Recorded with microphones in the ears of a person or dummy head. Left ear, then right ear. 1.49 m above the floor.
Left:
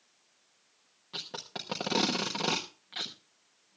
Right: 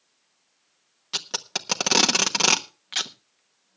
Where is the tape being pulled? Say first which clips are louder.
Right 10 dB; 50° right (ahead or behind), 1.0 m.